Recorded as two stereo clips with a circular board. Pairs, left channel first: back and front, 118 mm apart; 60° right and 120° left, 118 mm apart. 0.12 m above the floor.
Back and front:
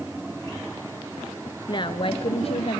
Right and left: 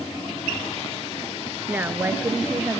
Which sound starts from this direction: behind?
A woman speaking, at 1.7 s.